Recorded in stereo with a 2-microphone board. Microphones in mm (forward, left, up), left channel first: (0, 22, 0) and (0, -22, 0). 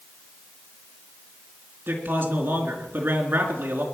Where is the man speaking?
50° right (ahead or behind), 3.5 m.